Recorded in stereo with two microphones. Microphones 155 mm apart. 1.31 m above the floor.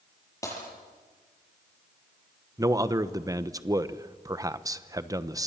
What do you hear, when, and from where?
0.4 s breaking glass: 20° left (ahead or behind), 8.5 m
2.6 s a man speaking: 20° right (ahead or behind), 0.9 m